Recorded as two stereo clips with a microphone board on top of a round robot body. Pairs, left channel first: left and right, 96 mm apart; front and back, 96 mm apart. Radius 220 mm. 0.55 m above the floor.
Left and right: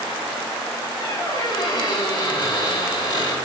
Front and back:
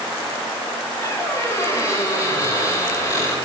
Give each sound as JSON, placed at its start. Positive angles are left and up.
{"t": 1.0, "sound": "a squeak", "azimuth_deg": 50, "distance_m": 7.5}